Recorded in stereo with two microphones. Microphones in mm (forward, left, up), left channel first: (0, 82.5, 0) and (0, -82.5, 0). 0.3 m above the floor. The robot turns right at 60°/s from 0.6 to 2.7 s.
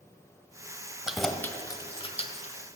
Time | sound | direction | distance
1.1 | keys jangling | 5° right (ahead or behind) | 0.9 m